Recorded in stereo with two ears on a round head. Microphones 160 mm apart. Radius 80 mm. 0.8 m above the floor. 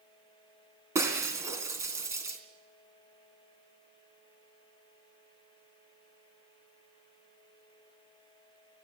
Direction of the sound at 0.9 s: 15° right (ahead or behind).